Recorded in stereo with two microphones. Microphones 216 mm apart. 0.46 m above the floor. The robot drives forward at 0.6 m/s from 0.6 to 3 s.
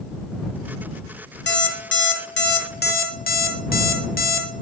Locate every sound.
1.5 s an alarm clock: 60° left (ahead or behind), 0.9 m; by 4.5 s 45° left (ahead or behind), 1.0 m